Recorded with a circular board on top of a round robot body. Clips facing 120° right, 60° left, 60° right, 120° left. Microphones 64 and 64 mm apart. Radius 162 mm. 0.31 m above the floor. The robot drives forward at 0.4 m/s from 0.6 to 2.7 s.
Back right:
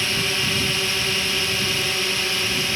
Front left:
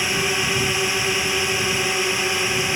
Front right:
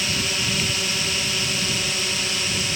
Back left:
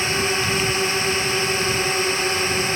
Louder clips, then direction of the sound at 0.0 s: Front left 2 dB, back left 5 dB; 115° left.